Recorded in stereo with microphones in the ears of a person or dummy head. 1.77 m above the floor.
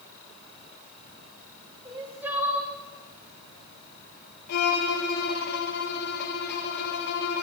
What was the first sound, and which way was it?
Crying, 15° right (ahead or behind).